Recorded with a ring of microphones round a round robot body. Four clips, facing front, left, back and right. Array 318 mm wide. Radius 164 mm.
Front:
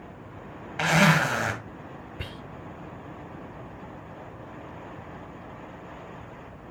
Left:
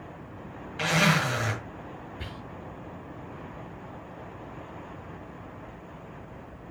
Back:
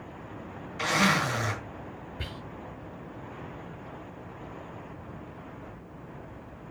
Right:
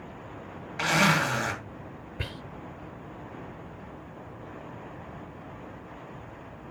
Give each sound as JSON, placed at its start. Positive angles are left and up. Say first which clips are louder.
{"t": 0.8, "sound": "a zipper", "louder": "right 1 dB, front 4 dB", "azimuth_deg": -10, "distance_m": 2.0}
{"t": 2.2, "sound": "whispering", "louder": "right 1 dB, even", "azimuth_deg": -70, "distance_m": 1.1}